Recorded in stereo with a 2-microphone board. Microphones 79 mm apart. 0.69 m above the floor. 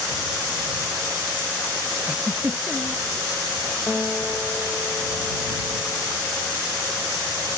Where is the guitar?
10° left (ahead or behind).